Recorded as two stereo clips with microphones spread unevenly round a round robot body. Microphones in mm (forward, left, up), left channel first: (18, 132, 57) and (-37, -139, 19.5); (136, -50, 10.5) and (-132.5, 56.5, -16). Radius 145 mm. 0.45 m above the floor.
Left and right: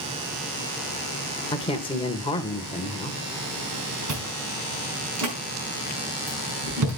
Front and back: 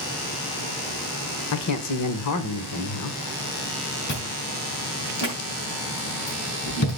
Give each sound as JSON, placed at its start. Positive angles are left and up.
{"t": 1.5, "sound": "a man speaking", "azimuth_deg": 5, "distance_m": 1.4}
{"t": 4.1, "sound": "chewing", "azimuth_deg": -75, "distance_m": 5.0}